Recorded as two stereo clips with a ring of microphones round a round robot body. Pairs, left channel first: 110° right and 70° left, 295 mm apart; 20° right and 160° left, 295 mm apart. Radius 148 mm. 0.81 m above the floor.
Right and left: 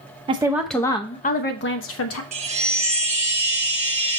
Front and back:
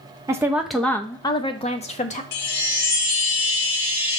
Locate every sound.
0.3 s a woman speaking: 100° left, 0.7 m; by 2.2 s 85° right, 1.1 m
2.3 s a chime: straight ahead, 1.0 m